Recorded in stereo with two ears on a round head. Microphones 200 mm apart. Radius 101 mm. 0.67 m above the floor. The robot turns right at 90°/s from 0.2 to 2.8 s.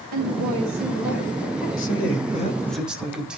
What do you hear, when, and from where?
0.1 s a woman speaking: 85° right, 6.5 m; by 1.7 s 50° left, 6.5 m
1.8 s a man speaking: 90° left, 4.5 m; by 3.4 s 175° right, 4.5 m